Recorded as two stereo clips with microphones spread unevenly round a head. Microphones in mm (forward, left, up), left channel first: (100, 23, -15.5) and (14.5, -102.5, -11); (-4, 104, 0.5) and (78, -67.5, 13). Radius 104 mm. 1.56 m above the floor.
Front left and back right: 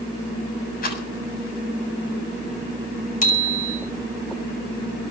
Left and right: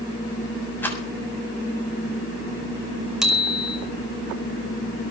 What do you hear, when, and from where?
0.8 s a rattle: 35° left, 7 m
3.2 s a bicycle bell: 25° left, 6 m